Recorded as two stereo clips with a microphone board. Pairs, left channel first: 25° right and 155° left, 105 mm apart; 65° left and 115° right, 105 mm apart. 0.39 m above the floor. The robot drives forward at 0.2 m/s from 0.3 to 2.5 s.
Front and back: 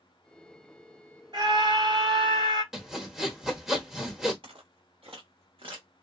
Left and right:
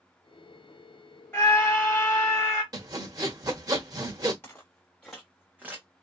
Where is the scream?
140° left, 2.0 m; by 2.6 s 145° left, 2 m.